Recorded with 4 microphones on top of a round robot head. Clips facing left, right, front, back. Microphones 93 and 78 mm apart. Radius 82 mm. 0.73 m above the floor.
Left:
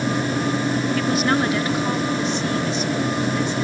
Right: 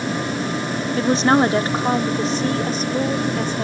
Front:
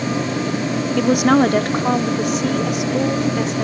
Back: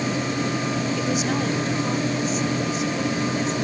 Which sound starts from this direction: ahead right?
A woman speaking, at 1.0 s.